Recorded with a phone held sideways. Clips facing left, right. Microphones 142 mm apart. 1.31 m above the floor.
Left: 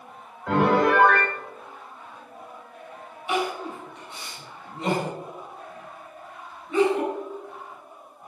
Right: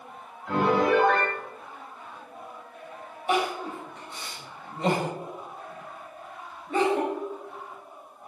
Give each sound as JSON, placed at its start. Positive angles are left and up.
{"t": 0.5, "sound": "a piano", "side_deg": 90, "distance_m": 3.0}
{"t": 3.3, "sound": "crying", "side_deg": -45, "distance_m": 5.5}